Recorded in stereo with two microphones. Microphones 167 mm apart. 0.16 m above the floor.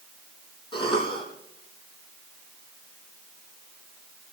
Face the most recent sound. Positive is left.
turn(degrees=30)  # may be behind; listen again after turning